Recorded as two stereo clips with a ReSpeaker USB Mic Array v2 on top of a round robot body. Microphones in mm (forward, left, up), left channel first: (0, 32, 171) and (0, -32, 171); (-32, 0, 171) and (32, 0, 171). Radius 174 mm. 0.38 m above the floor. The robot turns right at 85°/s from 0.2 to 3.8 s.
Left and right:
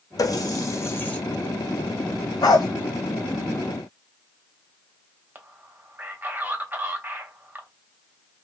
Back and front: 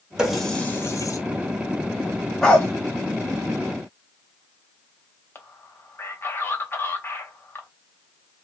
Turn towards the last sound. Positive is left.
turn(degrees=-145)